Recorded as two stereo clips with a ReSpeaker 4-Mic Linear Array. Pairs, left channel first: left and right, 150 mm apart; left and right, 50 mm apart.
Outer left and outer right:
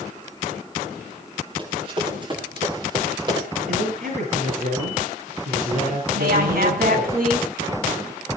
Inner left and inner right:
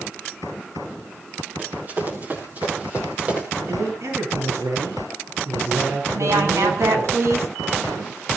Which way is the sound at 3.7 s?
85° right.